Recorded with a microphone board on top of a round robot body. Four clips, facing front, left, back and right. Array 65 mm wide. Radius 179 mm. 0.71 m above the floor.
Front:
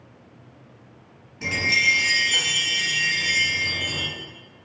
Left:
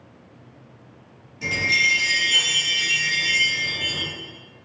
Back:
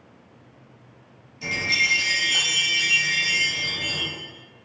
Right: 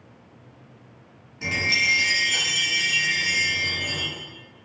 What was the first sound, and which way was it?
A chime, 25° right.